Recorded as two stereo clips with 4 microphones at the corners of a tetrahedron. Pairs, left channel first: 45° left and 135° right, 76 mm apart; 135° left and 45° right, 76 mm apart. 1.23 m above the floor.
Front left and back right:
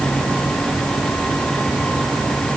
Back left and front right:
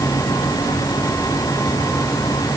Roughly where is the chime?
No chime in this recording.